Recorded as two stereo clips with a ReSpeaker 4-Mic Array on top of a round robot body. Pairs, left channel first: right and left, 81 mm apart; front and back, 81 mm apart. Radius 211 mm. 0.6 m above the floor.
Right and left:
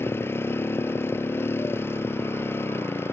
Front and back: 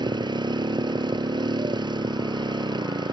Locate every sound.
0.0 s a motorcycle: 150° right